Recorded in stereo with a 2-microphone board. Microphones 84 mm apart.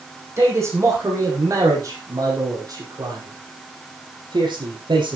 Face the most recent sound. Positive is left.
turn(degrees=-65)  # may be behind; listen again after turning